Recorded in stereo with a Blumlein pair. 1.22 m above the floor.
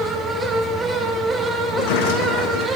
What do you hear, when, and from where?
0.0 s a fan: 10° right, 1.6 m
1.7 s a sliding door: 45° left, 1.1 m